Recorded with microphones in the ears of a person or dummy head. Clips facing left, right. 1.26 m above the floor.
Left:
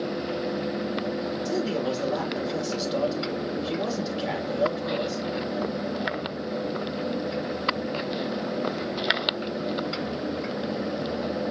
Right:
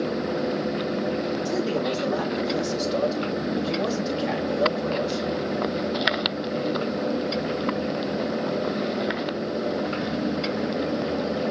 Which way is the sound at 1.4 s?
Centre (ahead or behind).